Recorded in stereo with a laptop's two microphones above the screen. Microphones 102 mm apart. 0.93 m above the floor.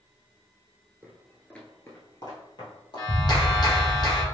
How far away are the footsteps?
About 0.9 m.